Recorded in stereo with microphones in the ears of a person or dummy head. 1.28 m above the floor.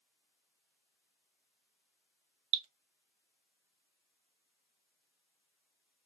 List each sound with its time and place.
2.5 s dripping: 30° right (ahead or behind), 0.5 m